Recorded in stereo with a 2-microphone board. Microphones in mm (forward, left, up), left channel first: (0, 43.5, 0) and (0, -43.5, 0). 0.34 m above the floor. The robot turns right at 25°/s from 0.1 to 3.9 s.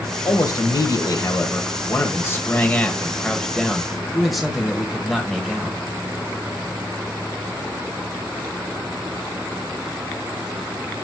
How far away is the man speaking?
About 1.3 m.